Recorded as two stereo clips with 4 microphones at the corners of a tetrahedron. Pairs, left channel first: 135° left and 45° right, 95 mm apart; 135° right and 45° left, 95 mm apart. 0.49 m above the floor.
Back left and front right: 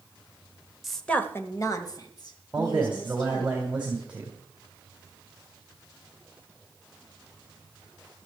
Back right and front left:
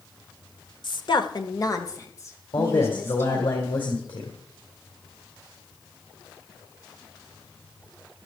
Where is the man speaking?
120° right, 3 m.